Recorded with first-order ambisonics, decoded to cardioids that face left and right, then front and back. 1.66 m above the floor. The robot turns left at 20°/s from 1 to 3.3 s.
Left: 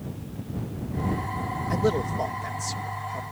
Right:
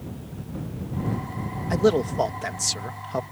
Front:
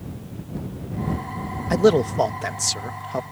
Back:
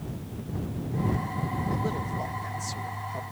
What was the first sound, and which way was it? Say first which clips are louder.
A man speaking: right 5 dB, front 14 dB; 15° right.